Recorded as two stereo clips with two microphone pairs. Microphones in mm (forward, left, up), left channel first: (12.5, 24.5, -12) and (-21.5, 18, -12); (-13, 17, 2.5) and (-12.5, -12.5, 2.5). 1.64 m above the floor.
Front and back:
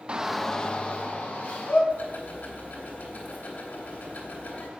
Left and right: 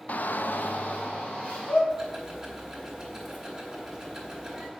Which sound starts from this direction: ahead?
Ticking, at 1.9 s.